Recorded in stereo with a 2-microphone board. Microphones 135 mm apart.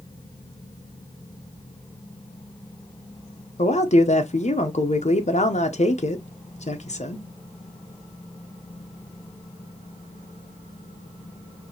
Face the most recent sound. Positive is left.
turn(degrees=55)  # may be behind; listen again after turning